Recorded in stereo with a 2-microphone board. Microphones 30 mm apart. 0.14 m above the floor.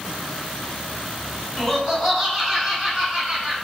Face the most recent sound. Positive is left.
turn(degrees=-15)  # may be behind; listen again after turning